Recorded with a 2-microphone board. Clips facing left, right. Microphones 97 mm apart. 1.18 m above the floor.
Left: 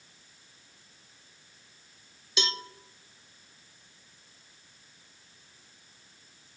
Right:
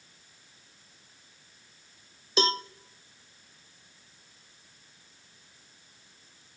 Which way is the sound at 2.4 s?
40° right (ahead or behind).